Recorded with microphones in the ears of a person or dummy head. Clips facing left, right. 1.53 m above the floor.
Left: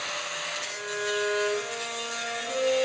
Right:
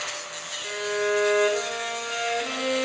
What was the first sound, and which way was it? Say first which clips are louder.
A violin: right 8 dB; 80° right.